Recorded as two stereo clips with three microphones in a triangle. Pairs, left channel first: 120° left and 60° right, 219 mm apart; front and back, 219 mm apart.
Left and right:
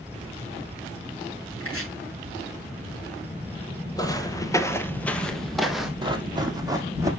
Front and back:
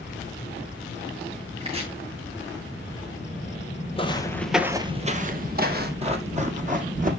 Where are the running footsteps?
125° right, 1.5 m; by 7.1 s 135° right, 2 m.